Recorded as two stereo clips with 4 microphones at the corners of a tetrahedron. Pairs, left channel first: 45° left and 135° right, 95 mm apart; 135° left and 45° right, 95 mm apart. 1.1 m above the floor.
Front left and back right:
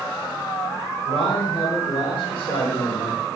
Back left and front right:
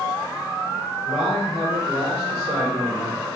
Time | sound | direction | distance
1.1 | a man speaking | 20° left | 3.5 m